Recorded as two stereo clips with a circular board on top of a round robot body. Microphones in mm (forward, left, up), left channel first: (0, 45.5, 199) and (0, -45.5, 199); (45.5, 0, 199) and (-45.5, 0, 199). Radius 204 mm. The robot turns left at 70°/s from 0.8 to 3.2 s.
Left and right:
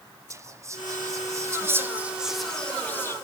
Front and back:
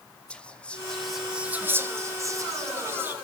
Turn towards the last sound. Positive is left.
turn(degrees=125)